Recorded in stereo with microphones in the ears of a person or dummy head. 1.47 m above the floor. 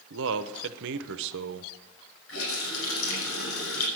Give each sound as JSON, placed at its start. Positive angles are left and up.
{"t": 0.1, "sound": "a man speaking", "side_deg": -70, "distance_m": 1.0}
{"t": 2.3, "sound": "a running tap", "side_deg": 85, "distance_m": 6.0}